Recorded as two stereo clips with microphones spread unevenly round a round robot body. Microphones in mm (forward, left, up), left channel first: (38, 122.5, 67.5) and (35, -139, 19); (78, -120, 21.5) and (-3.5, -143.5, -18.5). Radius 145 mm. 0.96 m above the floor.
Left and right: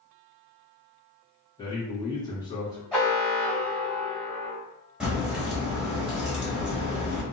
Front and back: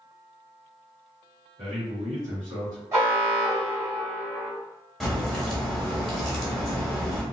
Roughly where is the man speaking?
Behind.